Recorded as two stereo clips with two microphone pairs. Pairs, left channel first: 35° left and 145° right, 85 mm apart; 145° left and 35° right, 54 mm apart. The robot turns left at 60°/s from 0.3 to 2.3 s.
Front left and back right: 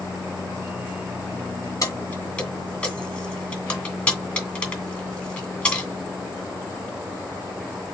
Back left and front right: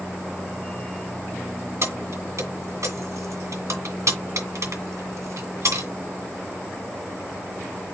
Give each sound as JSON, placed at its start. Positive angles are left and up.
{"t": 1.8, "sound": "keys jangling", "azimuth_deg": -10, "distance_m": 2.0}